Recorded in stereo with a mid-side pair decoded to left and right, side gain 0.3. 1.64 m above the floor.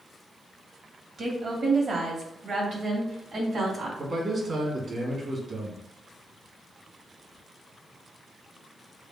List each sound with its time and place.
1.2 s a woman speaking: 65° right, 2.0 m; by 3.9 s 75° right, 3.5 m
4.0 s a man speaking: 60° right, 2 m